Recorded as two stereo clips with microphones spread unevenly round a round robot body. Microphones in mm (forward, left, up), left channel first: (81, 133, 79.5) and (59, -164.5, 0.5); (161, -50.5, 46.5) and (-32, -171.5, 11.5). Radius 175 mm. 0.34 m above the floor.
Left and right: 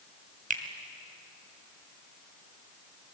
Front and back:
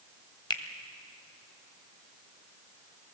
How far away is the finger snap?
About 2.0 m.